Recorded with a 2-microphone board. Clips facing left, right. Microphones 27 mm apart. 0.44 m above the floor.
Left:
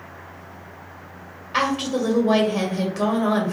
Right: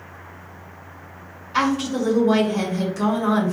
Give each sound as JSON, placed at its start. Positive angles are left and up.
{"t": 1.5, "sound": "a woman speaking", "side_deg": 35, "distance_m": 1.4}